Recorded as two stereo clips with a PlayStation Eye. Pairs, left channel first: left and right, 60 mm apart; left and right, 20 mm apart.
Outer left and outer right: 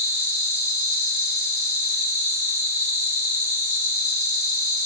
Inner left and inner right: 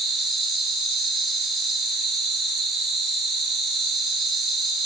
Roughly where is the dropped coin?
No dropped coin in this recording.